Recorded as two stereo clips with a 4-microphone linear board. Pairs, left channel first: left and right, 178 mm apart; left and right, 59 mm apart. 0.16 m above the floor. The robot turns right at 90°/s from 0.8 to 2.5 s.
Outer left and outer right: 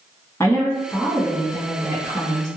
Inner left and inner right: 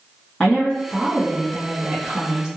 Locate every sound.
0.4 s a woman speaking: 15° left (ahead or behind), 1.2 m; by 2.5 s 20° right (ahead or behind), 1.2 m